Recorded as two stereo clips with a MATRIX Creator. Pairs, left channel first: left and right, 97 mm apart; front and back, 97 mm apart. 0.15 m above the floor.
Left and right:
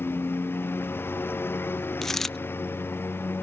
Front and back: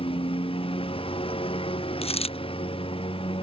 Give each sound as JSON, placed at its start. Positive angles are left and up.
{"t": 0.0, "sound": "a lawn mower", "azimuth_deg": 20}
{"t": 2.0, "sound": "a dropped coin", "azimuth_deg": 5}